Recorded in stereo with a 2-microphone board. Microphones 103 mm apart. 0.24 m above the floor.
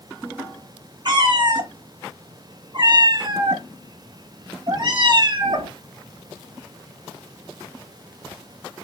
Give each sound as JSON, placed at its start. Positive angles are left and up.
{"t": 1.1, "sound": "a cat meowing", "side_deg": -45, "distance_m": 0.7}